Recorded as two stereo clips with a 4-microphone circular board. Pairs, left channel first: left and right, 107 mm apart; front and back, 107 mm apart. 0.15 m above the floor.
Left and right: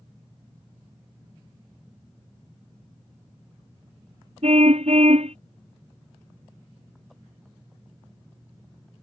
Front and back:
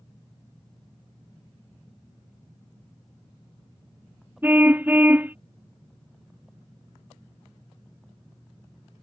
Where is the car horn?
105° right.